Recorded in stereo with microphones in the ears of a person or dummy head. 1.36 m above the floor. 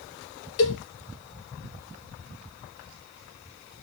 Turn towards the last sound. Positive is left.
turn(degrees=70)  # may be behind; listen again after turning